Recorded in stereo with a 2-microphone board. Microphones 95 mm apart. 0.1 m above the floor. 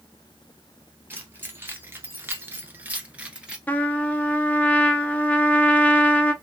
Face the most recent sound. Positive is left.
turn(degrees=15)  # may be behind; listen again after turning